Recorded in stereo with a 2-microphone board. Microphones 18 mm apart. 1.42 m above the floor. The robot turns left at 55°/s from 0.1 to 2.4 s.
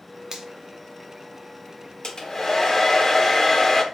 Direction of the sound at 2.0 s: 45° left (ahead or behind).